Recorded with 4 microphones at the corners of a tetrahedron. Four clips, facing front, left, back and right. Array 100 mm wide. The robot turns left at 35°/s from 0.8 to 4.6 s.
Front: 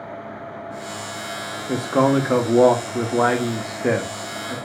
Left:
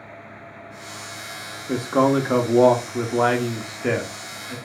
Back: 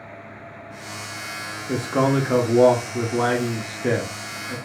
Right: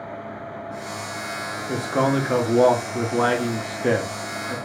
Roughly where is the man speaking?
Ahead left.